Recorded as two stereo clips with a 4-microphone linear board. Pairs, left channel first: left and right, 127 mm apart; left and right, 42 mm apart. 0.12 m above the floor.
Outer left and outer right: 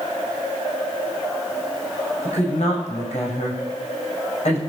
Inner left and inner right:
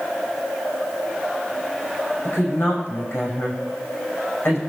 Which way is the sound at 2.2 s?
60° left (ahead or behind).